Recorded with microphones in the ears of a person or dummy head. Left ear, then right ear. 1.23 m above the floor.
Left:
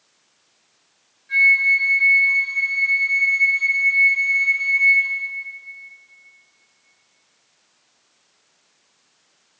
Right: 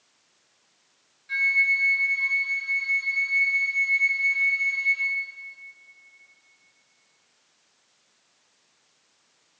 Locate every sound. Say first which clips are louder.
1.3 s a flute: left 7 dB; 25° right (ahead or behind), 3 m